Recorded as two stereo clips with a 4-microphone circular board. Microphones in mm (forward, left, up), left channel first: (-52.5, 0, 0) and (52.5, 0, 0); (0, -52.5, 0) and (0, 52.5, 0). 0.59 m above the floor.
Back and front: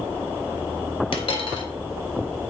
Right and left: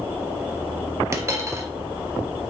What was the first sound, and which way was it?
A dropped coin, 150° left.